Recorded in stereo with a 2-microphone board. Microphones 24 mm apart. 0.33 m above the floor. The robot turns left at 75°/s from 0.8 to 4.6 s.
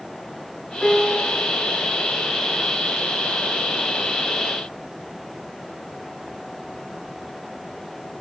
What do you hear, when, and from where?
0.8 s a piano: 50° left, 1.4 m; by 1.3 s 15° left, 1.4 m